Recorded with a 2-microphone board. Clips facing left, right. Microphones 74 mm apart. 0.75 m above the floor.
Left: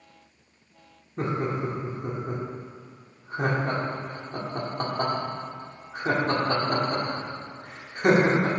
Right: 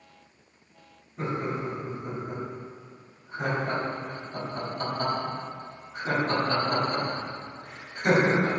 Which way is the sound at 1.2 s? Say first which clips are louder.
Left 3 dB; 55° left (ahead or behind).